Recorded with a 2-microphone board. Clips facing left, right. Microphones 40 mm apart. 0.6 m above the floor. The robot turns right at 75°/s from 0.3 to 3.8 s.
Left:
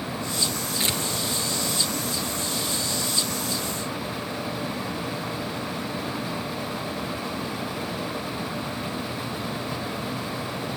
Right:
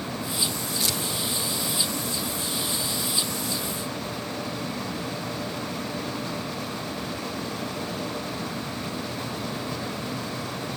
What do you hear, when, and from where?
0.8 s tearing paper: 35° left (ahead or behind), 1.9 m; by 1.0 s 25° left (ahead or behind), 1.9 m